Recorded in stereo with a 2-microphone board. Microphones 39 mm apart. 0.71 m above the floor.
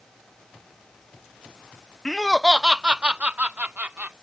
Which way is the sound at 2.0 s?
15° left (ahead or behind).